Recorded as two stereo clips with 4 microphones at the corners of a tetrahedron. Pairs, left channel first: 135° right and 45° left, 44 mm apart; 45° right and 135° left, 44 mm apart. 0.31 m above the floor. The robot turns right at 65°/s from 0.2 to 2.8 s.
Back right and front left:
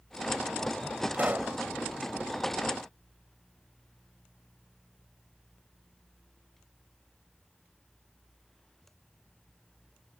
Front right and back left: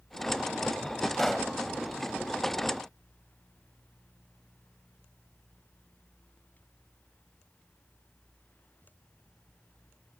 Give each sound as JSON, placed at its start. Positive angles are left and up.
{"t": 1.1, "sound": "a pop", "azimuth_deg": 30}